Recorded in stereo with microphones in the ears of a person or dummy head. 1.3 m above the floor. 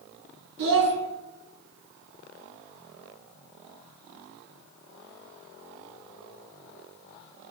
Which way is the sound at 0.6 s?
65° right (ahead or behind).